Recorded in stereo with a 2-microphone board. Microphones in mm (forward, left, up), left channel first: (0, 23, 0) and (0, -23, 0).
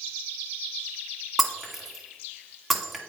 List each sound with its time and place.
1.4 s breaking glass: centre (ahead or behind), 1.0 m